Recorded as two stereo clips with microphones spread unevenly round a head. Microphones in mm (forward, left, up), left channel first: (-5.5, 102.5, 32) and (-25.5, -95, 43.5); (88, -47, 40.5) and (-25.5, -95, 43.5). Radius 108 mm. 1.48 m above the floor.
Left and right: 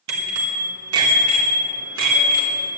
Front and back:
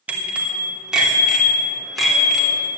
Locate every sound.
0.1 s a bicycle bell: 80° right, 3 m; by 2.7 s 65° right, 4 m